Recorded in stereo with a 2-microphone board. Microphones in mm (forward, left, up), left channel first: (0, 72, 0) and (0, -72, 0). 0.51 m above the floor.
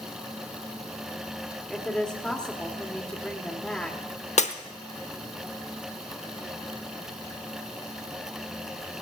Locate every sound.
1.7 s a woman speaking: 5° left (ahead or behind), 1.5 m
4.4 s breaking glass: 55° left (ahead or behind), 0.8 m